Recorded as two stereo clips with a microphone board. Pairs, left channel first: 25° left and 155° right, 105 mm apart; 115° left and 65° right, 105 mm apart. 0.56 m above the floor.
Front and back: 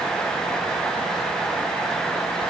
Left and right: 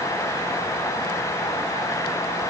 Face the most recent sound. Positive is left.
No sound to turn to.